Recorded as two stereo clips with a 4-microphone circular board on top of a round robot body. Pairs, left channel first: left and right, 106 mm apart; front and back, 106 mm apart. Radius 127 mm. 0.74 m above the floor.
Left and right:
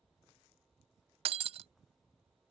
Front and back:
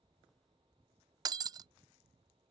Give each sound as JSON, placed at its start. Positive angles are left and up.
{"t": 1.2, "sound": "breaking glass", "azimuth_deg": -125}